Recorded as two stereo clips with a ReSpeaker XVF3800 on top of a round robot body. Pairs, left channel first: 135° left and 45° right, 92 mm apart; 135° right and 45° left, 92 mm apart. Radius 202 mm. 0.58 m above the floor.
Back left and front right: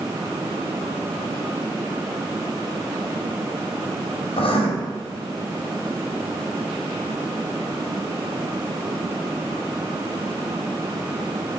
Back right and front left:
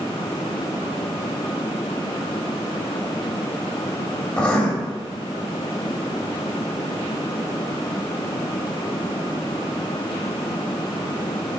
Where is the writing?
150° left, 1.8 m.